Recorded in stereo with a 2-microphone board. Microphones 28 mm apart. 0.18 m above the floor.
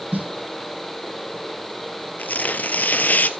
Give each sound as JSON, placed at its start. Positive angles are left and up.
{"t": 0.1, "sound": "a snare drum", "side_deg": -75, "distance_m": 1.5}
{"t": 2.2, "sound": "tearing paper", "side_deg": 75, "distance_m": 0.9}